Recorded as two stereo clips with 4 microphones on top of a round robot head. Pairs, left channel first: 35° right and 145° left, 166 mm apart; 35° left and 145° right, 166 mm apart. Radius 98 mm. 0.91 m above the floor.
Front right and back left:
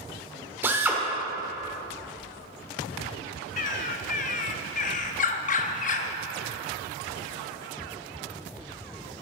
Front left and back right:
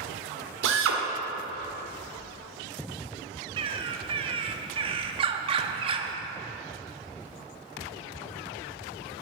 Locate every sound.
0.6 s a drill: 135° right, 1.7 m
3.6 s a bird: 85° right, 0.6 m